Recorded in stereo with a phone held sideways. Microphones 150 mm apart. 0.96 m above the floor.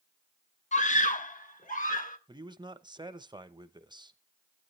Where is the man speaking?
30° right (ahead or behind), 0.7 m.